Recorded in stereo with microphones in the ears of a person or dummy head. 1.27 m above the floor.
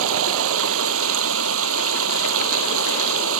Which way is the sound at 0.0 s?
75° right (ahead or behind).